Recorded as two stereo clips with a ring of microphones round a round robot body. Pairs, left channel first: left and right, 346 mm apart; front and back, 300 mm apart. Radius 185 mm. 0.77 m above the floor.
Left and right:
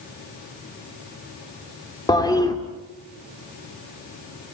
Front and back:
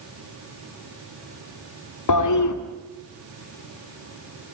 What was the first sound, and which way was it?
A toilet flushing, 10° left.